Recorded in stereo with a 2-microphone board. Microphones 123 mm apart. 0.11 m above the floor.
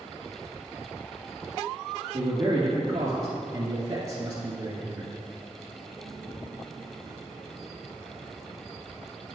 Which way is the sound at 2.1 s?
30° right (ahead or behind).